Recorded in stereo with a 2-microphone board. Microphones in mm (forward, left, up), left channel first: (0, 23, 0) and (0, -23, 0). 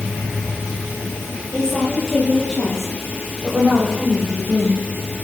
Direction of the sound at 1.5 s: 15° left (ahead or behind).